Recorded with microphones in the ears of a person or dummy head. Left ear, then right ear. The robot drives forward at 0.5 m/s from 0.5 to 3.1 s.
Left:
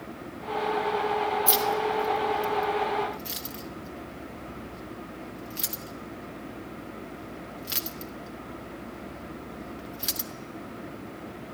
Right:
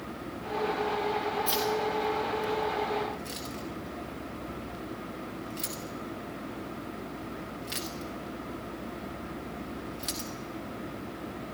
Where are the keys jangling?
10° left (ahead or behind), 1.7 m; by 10.3 s 15° left (ahead or behind), 1.0 m.